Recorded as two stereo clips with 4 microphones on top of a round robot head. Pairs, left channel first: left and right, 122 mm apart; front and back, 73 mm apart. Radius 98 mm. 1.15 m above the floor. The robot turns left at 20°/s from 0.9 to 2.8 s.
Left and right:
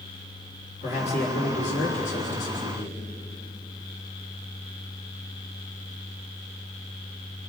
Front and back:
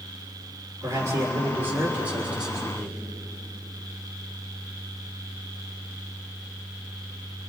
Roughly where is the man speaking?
Behind left.